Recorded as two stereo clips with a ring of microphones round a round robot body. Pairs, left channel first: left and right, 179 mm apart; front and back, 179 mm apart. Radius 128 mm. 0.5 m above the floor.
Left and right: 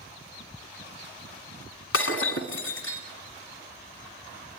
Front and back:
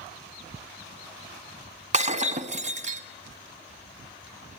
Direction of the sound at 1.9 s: 130° left.